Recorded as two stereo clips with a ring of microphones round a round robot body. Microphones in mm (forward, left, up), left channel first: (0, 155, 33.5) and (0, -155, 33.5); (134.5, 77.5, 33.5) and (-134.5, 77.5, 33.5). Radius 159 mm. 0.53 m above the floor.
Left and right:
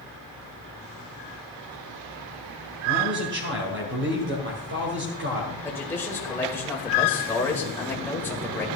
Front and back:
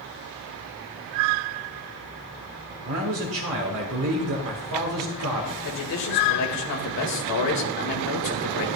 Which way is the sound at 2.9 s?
145° right.